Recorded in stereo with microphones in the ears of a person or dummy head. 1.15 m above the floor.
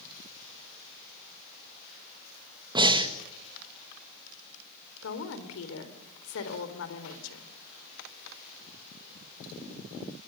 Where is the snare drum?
I don't hear a snare drum.